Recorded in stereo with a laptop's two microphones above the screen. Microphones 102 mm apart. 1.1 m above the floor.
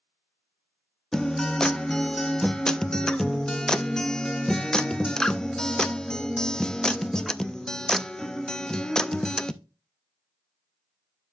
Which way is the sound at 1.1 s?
5° left (ahead or behind).